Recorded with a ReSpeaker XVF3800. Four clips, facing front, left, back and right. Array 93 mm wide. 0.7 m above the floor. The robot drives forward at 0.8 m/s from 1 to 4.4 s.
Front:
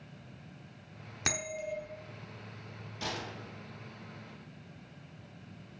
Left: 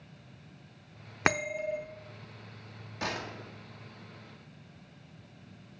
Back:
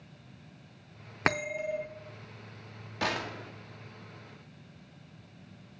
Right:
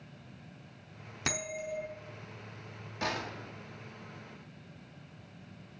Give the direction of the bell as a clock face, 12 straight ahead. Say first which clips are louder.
Left 7 dB, back 6 dB; 8 o'clock.